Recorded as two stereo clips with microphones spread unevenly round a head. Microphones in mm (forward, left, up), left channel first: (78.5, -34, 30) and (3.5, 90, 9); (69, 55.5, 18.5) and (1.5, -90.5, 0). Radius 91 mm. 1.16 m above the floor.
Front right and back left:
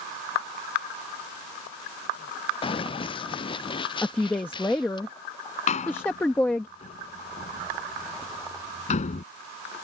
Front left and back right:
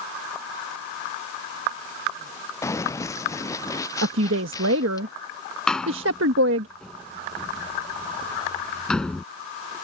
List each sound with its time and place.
2.6 s running footsteps: 5° right; by 5.0 s straight ahead
4.0 s a woman speaking: 140° right
5.7 s a door slam: 20° right